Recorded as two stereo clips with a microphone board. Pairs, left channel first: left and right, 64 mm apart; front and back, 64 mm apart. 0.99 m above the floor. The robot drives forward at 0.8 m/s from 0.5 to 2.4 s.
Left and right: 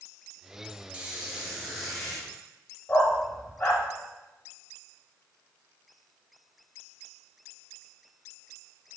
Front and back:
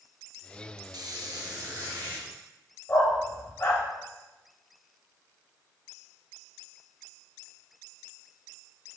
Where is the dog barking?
60° left, 1.2 m.